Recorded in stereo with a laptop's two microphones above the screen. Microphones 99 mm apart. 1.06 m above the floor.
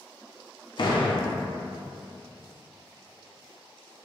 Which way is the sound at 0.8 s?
50° left (ahead or behind).